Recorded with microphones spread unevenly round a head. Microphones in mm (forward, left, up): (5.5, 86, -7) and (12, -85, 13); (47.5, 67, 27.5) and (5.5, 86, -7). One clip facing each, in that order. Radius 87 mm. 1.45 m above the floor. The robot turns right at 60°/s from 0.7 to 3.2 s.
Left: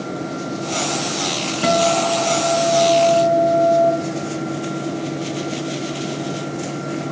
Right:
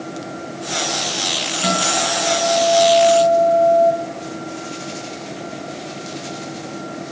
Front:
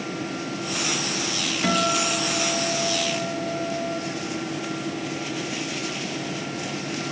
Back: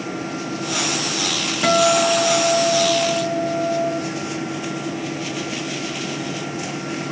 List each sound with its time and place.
1.6 s a guitar: 95° left, 1.9 m; by 3.9 s 175° right, 1.9 m